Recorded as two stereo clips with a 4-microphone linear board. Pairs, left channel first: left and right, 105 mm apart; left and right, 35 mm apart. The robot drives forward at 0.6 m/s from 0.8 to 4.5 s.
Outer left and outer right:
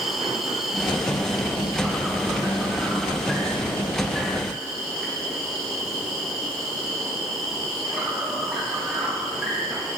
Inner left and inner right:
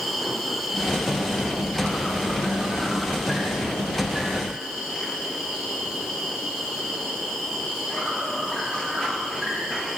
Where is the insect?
Centre (ahead or behind), 1.2 m.